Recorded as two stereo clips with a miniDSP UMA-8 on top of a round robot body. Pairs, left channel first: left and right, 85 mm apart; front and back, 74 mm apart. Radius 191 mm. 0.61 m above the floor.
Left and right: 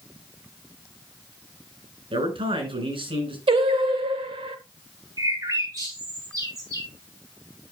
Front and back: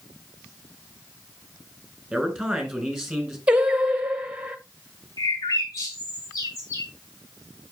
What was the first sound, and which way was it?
A man speaking, 90° right.